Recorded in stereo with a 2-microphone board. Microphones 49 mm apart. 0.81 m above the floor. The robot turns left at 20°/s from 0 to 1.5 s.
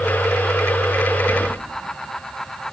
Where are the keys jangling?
25° right (ahead or behind), 0.8 m; by 1.5 s 20° right (ahead or behind), 0.8 m.